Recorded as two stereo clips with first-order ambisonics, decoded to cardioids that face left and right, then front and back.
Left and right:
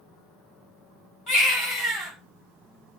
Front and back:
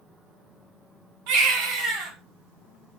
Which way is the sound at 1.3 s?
155° left.